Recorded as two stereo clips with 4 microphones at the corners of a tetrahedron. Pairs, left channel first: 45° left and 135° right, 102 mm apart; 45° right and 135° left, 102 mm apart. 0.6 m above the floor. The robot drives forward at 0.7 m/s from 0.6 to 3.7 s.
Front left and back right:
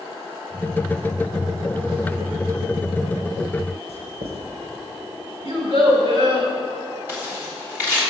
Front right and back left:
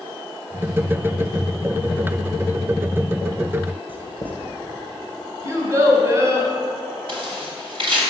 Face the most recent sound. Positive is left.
turn(degrees=155)